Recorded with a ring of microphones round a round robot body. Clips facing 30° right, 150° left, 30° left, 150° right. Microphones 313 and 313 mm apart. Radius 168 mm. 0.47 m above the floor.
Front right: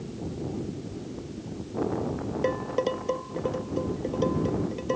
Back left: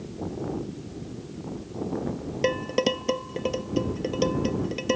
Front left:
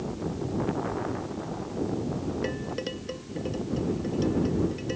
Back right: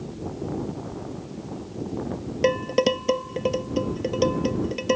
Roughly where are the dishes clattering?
Behind.